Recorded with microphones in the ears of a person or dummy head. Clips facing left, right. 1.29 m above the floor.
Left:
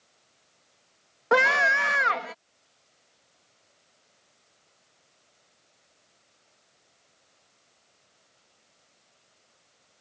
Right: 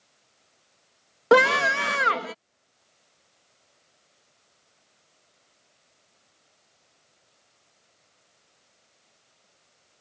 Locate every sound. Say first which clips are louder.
1.3 s a scream: right 5 dB; 50° right (ahead or behind)